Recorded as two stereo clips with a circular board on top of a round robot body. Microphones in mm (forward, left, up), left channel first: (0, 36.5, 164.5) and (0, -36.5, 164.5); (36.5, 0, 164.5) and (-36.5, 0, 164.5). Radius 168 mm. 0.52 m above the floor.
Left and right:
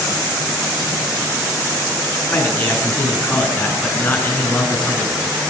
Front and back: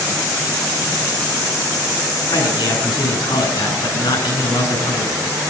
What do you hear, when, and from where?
2.3 s a man speaking: 20° left, 8 m